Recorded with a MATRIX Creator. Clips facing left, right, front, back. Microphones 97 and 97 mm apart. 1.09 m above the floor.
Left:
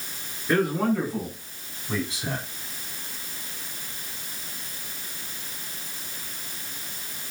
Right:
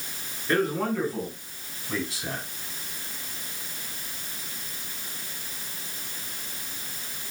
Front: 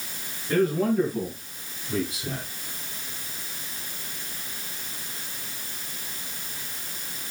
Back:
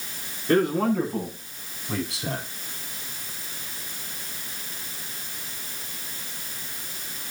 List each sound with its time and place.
0.5 s a man speaking: 175° left, 9.5 m; by 2.5 s 165° left, 8.5 m